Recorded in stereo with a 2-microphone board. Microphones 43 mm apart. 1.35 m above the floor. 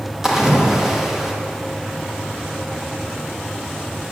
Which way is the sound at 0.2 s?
10° right (ahead or behind).